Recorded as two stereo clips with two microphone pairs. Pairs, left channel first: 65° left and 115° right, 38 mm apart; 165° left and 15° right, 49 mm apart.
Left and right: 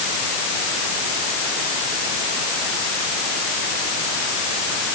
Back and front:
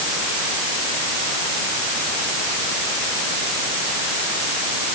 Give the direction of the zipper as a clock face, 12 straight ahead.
I don't hear a zipper.